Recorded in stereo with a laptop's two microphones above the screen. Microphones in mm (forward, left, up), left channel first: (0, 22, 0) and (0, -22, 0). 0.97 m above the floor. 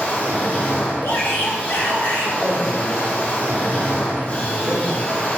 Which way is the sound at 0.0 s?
40° left (ahead or behind).